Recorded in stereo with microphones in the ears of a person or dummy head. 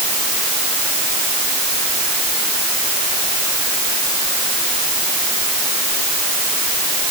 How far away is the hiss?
I don't hear a hiss.